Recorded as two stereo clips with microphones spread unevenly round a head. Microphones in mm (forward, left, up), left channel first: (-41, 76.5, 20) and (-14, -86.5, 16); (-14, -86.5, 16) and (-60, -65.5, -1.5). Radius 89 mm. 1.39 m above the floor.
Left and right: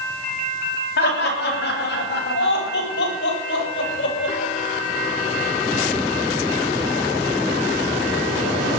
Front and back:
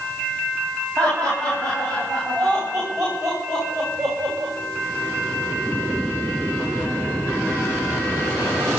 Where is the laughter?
60° left, 8.5 m; by 4.5 s 75° left, 6 m.